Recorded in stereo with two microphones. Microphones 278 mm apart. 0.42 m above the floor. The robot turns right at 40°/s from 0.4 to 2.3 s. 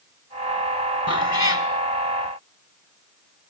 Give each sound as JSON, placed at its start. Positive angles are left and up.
{"t": 1.1, "sound": "a cat meowing", "side_deg": 60, "distance_m": 0.9}